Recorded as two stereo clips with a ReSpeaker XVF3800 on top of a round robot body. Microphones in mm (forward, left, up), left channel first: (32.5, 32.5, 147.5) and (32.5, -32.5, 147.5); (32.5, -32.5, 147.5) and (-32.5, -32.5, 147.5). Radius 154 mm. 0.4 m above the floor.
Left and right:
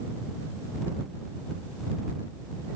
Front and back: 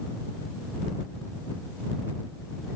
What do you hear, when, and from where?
Only background noise.